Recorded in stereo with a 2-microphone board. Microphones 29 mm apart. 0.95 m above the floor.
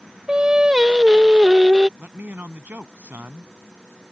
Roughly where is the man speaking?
Right.